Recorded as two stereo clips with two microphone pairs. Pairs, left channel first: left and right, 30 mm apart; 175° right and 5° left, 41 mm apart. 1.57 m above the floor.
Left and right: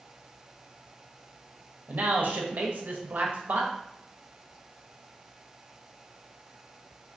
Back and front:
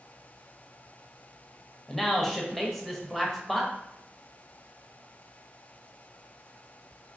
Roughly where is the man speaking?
Right.